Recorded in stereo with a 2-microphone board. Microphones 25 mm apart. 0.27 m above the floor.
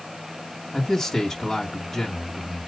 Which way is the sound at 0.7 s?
10° left (ahead or behind).